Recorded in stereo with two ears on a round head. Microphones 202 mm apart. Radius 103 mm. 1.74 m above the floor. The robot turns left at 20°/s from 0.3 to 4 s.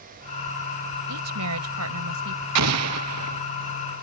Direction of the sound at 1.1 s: 80° right.